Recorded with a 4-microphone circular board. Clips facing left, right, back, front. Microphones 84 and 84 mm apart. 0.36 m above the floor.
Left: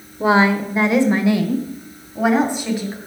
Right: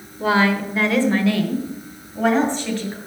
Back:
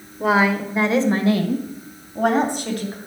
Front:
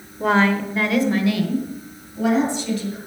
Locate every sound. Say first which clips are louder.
0.2 s a woman speaking: left 3 dB, even; 95° left, 1.0 m; by 3.0 s 170° left, 2.5 m